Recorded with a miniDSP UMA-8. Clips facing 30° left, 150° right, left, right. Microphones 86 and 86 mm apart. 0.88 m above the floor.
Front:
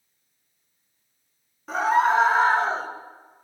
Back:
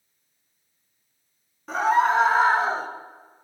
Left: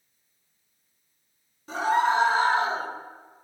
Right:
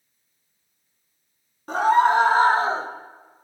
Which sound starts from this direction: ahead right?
A scream, at 1.7 s.